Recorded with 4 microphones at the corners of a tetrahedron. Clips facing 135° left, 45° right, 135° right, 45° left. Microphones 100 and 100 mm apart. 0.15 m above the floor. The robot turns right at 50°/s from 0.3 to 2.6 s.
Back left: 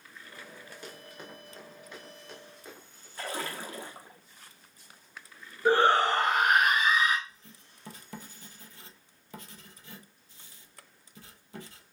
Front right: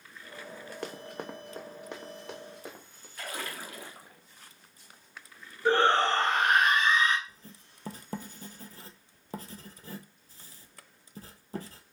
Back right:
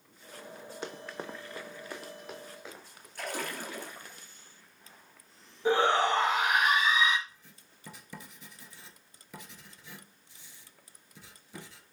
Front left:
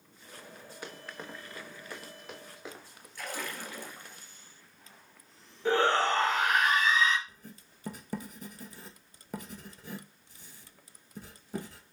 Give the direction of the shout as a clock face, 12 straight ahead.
6 o'clock.